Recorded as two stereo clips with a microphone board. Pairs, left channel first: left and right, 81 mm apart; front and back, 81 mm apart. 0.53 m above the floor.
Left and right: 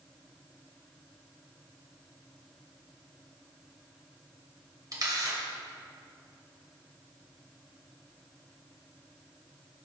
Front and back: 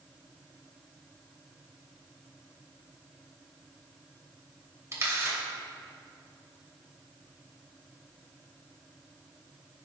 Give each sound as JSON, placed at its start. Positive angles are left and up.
{"t": 4.9, "sound": "a camera shutter", "azimuth_deg": -125, "distance_m": 2.5}